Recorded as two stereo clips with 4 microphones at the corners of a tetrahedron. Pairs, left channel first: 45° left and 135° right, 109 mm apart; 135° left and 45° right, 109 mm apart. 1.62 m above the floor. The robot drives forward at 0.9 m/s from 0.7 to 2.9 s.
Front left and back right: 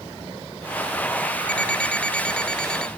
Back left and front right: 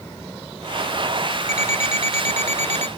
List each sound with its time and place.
1.5 s an alarm clock: 35° right; by 2.9 s 40° right